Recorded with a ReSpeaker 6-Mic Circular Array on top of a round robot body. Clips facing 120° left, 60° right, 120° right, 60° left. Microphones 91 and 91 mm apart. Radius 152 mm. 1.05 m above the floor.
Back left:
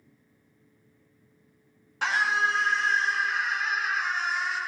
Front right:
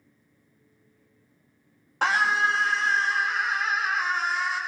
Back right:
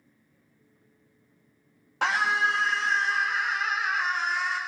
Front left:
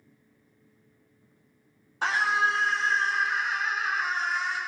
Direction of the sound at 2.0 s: 105° right.